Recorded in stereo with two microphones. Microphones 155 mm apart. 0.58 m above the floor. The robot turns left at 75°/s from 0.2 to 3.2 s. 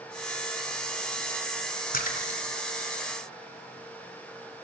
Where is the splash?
75° left (ahead or behind), 2.5 m; by 2.4 s 40° left (ahead or behind), 2.5 m.